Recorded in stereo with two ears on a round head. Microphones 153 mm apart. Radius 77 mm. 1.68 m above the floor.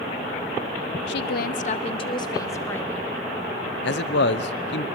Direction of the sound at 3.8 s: 65° left (ahead or behind).